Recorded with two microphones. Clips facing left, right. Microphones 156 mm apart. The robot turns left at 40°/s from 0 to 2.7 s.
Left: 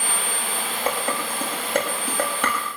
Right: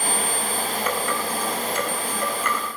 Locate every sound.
0.9 s dishes clattering: 30° left (ahead or behind), 8 m; by 2.6 s 80° left, 8 m